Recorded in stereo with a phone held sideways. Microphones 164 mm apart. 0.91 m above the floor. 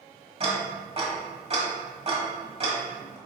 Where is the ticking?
45° right (ahead or behind), 1.4 m.